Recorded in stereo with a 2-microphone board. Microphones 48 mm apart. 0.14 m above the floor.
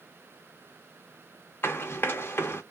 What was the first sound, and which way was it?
Running footsteps, 50° left (ahead or behind).